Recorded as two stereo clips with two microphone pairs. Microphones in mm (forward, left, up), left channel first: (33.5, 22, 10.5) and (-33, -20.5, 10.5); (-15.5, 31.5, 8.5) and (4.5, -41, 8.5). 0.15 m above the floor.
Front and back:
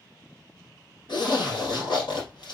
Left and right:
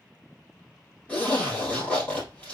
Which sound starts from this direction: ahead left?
A zipper, at 1.1 s.